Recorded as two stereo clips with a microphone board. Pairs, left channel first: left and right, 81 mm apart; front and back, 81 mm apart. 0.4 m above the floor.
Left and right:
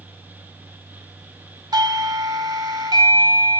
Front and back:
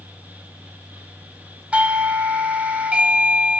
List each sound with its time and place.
1.7 s a doorbell: 110° right, 2.5 m